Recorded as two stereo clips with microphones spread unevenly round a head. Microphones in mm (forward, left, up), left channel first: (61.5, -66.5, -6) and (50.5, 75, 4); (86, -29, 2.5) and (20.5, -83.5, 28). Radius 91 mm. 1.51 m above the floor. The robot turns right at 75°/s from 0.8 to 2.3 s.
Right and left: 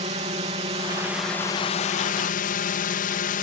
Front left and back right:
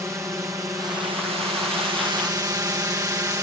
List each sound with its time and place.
0.0 s a drone: 145° left; by 3.4 s 85° right